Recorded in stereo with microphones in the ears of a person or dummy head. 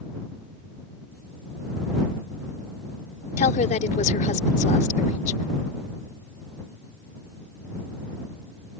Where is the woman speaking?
35° left (ahead or behind).